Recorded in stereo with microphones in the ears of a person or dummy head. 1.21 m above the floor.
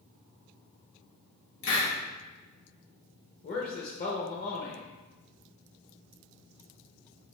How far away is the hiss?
About 1.4 m.